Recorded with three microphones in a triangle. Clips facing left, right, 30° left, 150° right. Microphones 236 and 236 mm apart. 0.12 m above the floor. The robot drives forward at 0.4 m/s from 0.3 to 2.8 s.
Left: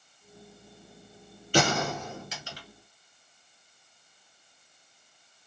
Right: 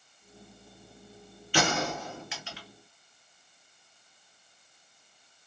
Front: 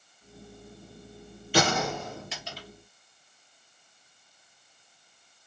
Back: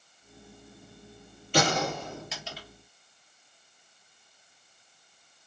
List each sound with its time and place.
1.5 s a gunshot: 110° left, 1.7 m; by 2.7 s 125° left, 1.9 m